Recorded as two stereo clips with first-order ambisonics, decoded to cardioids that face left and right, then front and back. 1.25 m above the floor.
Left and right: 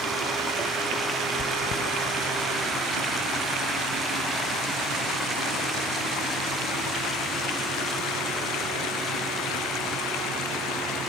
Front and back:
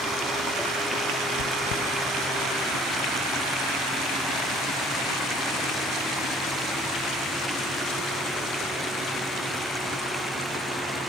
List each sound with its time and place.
1.4 s chewing: 35° left, 0.7 m